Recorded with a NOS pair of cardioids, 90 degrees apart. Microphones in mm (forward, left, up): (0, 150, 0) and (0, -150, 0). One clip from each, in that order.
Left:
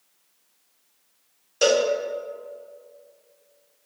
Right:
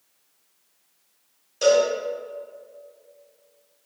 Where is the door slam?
No door slam in this recording.